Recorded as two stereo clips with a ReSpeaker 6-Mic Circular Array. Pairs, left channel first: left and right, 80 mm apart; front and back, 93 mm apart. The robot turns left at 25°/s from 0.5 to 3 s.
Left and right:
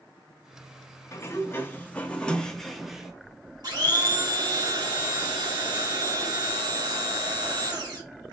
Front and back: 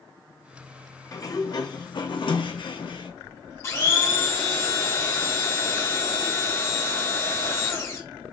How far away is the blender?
About 2 m.